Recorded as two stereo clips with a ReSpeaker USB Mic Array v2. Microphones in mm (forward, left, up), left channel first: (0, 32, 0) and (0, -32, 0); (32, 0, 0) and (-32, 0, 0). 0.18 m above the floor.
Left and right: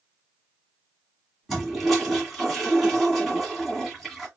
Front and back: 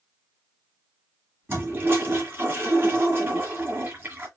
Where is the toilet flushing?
Straight behind, 2 m.